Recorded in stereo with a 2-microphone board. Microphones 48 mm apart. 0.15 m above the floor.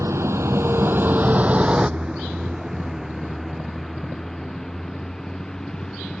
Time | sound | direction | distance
0.0 | a vehicle | 75° right (ahead or behind) | ?